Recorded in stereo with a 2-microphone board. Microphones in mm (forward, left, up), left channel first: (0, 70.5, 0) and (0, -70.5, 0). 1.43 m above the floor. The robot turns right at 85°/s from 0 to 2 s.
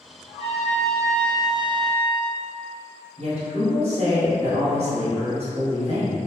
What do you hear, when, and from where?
0.3 s a trumpet: 45° left, 0.8 m; by 2.4 s 165° right, 0.8 m
3.2 s a woman speaking: 55° right (ahead or behind), 1.3 m